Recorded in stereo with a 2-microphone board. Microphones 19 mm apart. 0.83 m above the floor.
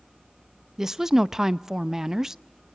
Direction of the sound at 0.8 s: 25° right (ahead or behind).